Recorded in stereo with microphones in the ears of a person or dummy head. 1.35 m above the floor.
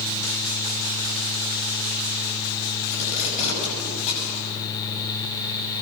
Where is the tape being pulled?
35° left (ahead or behind), 8.5 m.